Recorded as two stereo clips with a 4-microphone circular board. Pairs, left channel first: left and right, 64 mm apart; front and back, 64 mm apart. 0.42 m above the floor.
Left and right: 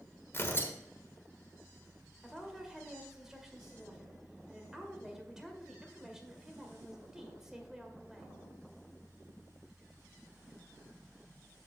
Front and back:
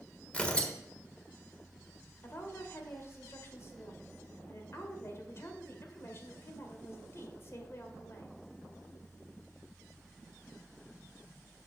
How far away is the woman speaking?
About 1.7 m.